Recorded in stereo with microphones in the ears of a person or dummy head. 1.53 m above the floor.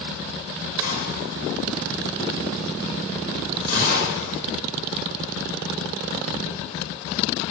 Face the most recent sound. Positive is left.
turn(degrees=45)  # may be behind; listen again after turning